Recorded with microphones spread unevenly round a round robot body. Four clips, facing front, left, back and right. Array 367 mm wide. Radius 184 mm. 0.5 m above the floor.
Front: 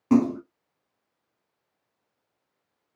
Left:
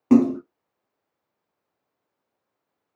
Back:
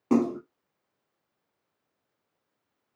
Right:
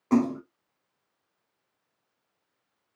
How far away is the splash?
About 2.5 m.